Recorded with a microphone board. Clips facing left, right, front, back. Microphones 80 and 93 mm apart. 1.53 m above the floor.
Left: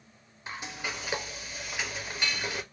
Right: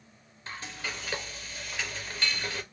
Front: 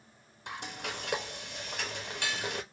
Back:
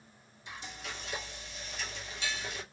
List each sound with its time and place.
0.5 s frying: 15° left, 0.6 m